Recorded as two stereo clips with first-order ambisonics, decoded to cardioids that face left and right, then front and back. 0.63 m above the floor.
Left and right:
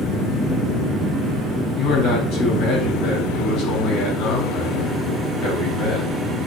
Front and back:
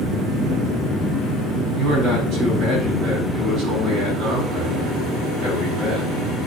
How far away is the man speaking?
About 4.5 m.